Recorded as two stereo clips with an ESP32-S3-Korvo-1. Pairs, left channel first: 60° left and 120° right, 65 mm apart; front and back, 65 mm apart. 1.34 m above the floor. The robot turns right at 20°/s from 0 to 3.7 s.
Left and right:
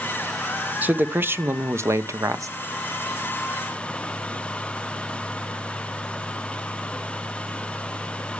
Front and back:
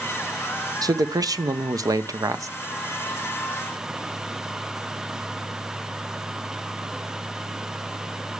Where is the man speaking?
175° left, 0.7 m; by 2.5 s 150° right, 0.7 m.